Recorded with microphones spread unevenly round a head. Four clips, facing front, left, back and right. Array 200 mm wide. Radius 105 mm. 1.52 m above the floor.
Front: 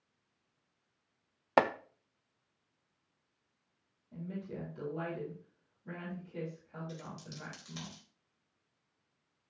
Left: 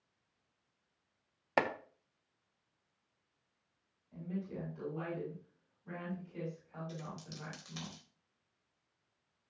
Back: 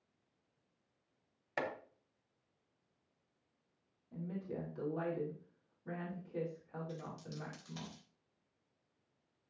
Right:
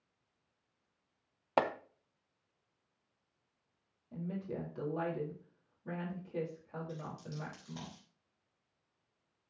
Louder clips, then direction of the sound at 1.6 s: Right 1 dB, front 12 dB; 5° right.